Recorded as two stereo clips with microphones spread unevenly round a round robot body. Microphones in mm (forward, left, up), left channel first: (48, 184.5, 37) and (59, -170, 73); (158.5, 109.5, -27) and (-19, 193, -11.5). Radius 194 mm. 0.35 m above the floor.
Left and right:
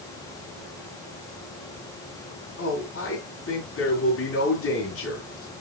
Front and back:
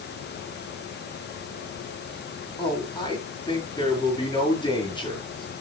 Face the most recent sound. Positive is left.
turn(degrees=40)